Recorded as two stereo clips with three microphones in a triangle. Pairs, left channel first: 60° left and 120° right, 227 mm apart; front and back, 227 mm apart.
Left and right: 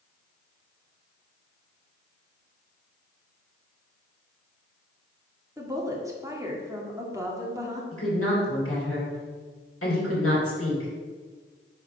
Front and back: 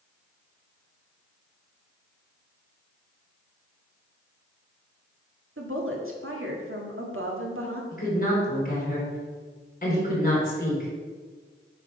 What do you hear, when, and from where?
5.6 s a woman speaking: 165° left, 1.6 m
7.9 s a woman speaking: 50° left, 3.5 m